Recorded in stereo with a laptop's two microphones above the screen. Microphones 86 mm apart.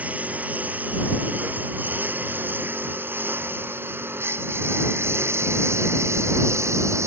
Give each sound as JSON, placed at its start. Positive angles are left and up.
{"t": 0.0, "sound": "a lawn mower", "side_deg": -15}